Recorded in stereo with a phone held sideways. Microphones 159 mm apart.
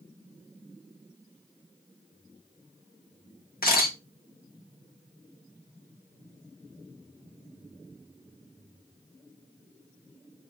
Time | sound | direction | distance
3.6 | a camera shutter | 70° left (ahead or behind) | 1.2 m